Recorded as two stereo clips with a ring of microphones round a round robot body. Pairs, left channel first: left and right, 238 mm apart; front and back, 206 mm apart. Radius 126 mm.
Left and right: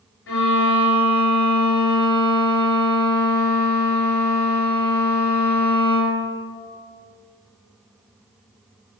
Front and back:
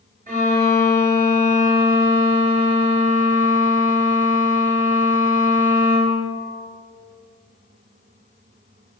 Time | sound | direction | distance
0.3 | a violin | 130° left | 2 m